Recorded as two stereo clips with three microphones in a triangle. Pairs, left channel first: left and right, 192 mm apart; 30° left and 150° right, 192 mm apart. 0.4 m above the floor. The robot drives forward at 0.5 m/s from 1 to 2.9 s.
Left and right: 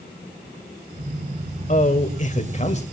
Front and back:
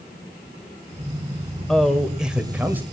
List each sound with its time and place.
1.7 s a man speaking: 115° left, 2 m; by 2.8 s 135° left, 2.5 m